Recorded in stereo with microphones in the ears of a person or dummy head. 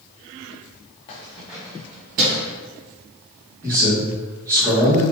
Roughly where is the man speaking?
Centre.